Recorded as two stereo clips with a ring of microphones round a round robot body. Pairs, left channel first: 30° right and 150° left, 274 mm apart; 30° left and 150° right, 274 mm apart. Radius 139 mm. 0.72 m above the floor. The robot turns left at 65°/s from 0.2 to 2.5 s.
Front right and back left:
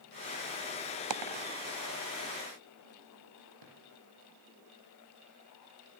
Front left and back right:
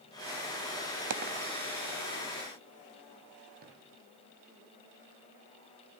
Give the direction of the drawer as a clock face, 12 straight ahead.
7 o'clock.